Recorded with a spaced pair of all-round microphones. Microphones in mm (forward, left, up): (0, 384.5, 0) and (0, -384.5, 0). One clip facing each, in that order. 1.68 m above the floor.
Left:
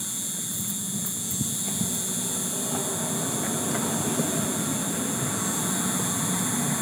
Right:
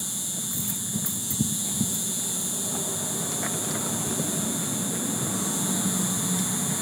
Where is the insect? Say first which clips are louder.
Even; 35° right (ahead or behind), 1.5 m.